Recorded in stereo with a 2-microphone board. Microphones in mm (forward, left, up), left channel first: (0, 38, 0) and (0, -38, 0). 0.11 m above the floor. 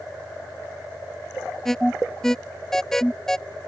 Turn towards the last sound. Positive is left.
turn(degrees=5)  # may be behind; listen again after turning